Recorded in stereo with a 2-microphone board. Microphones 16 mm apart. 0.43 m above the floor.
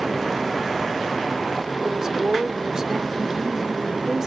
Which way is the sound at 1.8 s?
40° right (ahead or behind).